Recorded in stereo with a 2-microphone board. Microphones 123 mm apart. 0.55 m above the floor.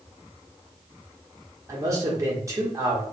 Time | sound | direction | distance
1.7 | a man speaking | 25° right (ahead or behind) | 1.2 m